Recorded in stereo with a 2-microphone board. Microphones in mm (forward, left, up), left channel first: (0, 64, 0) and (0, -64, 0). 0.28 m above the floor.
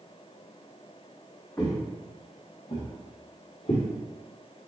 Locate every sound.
1.6 s footsteps: 20° left (ahead or behind), 1.3 m; by 3.9 s 60° left (ahead or behind), 2 m